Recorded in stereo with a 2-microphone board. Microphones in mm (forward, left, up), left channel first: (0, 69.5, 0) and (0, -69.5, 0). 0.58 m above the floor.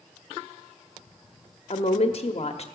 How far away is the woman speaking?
About 0.9 m.